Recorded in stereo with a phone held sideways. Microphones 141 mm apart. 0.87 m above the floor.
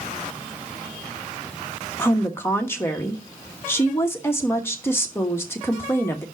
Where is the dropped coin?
I don't hear a dropped coin.